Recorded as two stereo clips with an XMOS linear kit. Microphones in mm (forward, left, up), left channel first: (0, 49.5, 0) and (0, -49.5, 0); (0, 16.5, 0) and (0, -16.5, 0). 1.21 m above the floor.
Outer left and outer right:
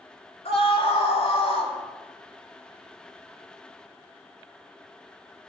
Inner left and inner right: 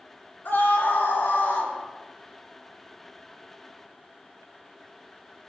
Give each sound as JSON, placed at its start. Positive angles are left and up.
{"t": 0.5, "sound": "a scream", "side_deg": 85, "distance_m": 3.5}